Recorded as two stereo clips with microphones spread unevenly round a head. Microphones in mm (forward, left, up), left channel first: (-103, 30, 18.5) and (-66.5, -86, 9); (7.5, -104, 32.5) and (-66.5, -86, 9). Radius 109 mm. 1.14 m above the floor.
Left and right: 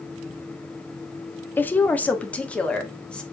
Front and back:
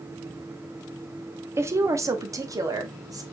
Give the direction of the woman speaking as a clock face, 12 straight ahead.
6 o'clock.